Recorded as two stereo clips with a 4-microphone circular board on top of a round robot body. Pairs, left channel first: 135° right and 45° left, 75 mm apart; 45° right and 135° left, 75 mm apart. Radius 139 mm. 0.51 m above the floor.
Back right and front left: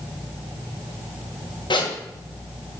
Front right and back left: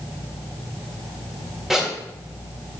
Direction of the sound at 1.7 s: 135° right.